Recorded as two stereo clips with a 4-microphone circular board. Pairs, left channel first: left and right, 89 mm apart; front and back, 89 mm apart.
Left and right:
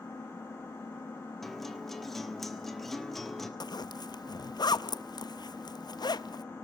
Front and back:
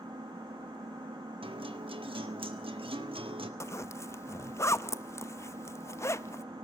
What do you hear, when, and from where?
0.0 s an engine running: 150° left, 1.1 m
1.4 s a guitar: 175° left, 1.5 m
3.6 s a zipper: 55° left, 0.6 m